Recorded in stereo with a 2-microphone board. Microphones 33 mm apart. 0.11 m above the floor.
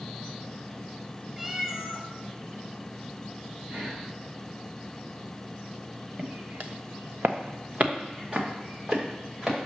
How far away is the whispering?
About 3 m.